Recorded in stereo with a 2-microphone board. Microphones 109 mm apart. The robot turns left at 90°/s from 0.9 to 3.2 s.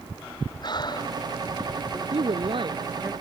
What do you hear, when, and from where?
0.6 s breathing: 45° left (ahead or behind); by 1.5 s 15° right (ahead or behind)
2.1 s a woman speaking: 75° right; by 3.1 s 165° right